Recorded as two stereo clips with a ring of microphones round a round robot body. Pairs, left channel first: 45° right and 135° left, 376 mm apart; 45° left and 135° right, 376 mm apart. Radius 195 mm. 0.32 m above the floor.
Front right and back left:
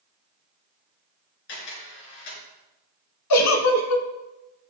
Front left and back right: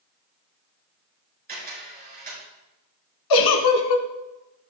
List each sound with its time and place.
1.5 s a camera shutter: 70° right, 4.5 m
3.3 s a giggle: 5° left, 1.0 m